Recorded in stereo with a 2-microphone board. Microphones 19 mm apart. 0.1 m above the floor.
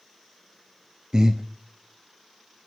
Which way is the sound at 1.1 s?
40° right (ahead or behind).